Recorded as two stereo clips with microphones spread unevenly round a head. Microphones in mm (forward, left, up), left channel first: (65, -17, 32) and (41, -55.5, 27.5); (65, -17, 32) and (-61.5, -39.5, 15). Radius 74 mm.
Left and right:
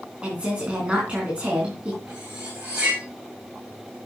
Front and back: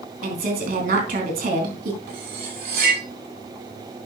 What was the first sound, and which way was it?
A woman speaking, 165° left.